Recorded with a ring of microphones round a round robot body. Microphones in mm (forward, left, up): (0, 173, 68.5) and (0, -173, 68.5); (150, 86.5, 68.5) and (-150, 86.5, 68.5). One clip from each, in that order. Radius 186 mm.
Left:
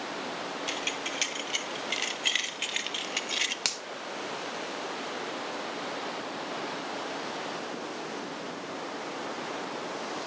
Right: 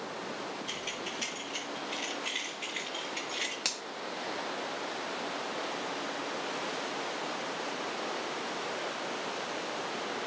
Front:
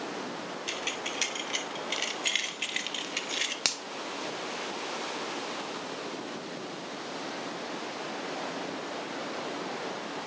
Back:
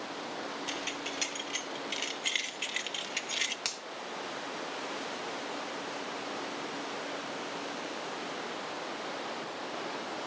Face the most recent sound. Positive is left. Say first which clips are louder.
# left 3 dB, front 6 dB
turn(degrees=35)